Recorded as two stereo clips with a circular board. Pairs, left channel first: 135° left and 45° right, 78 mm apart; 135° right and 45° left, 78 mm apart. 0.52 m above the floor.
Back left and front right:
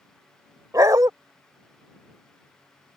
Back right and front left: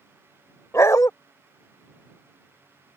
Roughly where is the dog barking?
Right.